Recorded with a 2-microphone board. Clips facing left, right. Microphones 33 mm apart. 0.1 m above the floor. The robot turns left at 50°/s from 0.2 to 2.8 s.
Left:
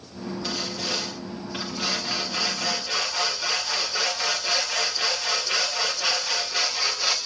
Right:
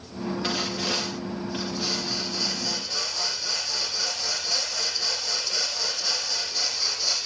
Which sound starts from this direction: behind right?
Sawing, at 0.4 s.